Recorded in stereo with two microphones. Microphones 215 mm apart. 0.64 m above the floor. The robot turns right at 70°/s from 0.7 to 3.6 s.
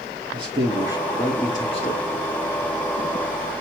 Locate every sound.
0.3 s a man speaking: 35° right, 1.6 m; by 2.0 s 55° left, 1.6 m